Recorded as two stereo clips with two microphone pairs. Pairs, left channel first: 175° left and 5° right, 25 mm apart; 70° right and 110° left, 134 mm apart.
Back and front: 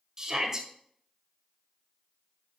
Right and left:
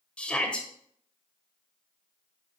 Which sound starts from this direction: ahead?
A shout, at 0.2 s.